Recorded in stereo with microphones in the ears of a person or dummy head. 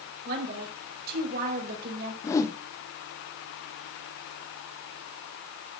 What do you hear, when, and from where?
0.2 s a woman speaking: 45° right (ahead or behind), 5 m
2.2 s a whoosh: 25° left (ahead or behind), 0.9 m